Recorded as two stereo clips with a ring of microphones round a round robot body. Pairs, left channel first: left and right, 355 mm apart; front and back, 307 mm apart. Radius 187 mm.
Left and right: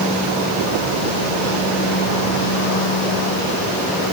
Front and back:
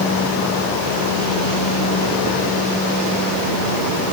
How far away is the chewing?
I don't hear chewing.